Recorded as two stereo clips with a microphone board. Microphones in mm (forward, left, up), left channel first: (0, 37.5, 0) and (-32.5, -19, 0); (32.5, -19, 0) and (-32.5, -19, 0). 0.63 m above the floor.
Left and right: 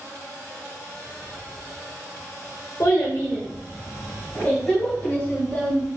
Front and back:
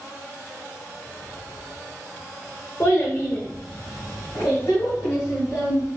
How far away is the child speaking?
About 1.2 m.